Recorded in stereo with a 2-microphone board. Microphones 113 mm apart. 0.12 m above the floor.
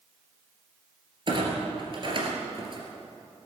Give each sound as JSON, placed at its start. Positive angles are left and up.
{"t": 1.3, "sound": "a clunk", "side_deg": -50, "distance_m": 2.5}